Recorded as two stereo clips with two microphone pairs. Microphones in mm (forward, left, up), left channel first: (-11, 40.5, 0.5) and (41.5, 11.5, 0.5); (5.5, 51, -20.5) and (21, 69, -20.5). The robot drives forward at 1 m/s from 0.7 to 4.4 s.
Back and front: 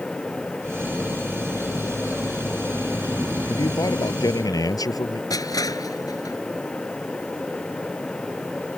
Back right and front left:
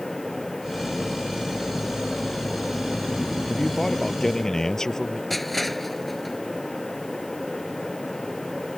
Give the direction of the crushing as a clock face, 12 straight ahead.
7 o'clock.